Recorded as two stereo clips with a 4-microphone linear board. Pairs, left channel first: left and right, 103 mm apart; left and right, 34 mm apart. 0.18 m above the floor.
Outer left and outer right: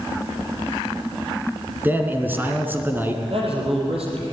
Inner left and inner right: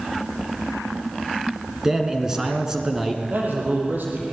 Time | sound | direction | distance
1.8 | a man speaking | 20° right (ahead or behind) | 2.5 m
3.3 | a man speaking | 65° right (ahead or behind) | 6.5 m